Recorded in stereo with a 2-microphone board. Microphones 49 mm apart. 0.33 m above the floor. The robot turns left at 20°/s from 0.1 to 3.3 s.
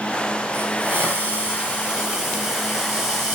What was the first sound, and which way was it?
A hiss, 140° right.